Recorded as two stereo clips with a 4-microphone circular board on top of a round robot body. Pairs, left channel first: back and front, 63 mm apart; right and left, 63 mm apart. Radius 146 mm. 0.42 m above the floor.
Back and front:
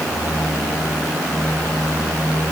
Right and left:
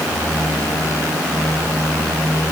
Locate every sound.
Only background noise.